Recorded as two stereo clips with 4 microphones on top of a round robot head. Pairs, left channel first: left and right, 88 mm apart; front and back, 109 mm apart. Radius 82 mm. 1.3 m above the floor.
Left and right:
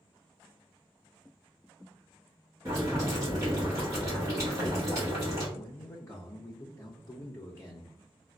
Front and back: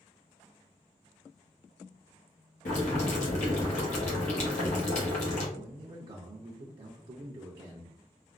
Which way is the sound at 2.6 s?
25° right.